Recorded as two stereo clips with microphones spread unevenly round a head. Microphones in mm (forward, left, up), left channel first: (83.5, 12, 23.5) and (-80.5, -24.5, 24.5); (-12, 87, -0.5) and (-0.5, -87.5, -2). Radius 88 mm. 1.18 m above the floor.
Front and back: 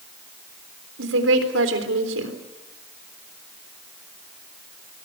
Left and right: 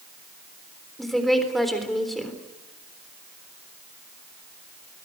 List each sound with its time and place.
1.0 s a woman speaking: 175° right, 3.5 m